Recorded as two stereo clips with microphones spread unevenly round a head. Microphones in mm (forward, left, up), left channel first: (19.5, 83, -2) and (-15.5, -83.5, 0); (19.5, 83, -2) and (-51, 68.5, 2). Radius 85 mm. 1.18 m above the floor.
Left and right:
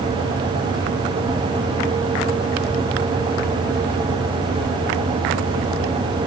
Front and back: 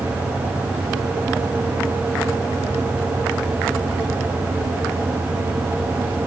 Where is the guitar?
No guitar in this recording.